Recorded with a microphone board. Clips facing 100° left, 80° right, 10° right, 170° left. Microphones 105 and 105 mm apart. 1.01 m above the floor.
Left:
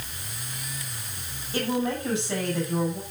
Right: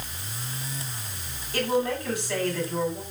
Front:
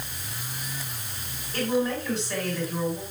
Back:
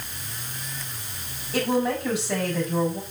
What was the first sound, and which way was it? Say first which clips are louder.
A woman speaking: right 1 dB, back 2 dB; 175° left.